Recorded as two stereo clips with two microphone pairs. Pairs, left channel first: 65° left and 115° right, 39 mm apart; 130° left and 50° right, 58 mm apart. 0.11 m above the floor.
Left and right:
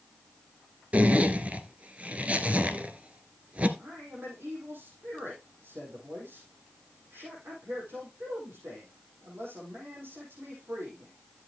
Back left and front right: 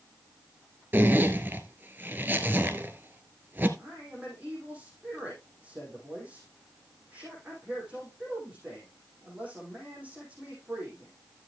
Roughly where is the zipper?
Right.